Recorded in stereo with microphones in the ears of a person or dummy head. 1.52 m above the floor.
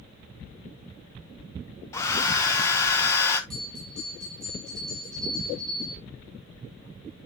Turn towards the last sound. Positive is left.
turn(degrees=5)  # may be behind; listen again after turning